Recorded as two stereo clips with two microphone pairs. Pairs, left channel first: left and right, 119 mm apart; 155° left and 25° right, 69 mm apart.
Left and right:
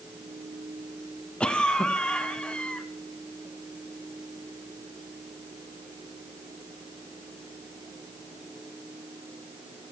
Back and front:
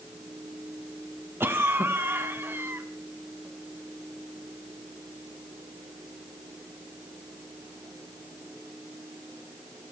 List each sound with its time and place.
1.4 s a cough: 10° left, 1.3 m